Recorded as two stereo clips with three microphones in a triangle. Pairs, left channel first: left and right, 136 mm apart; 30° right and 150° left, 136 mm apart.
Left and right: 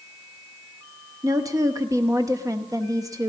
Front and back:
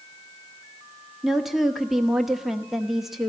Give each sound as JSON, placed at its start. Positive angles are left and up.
{"t": 1.2, "sound": "a woman speaking", "azimuth_deg": -125, "distance_m": 1.0}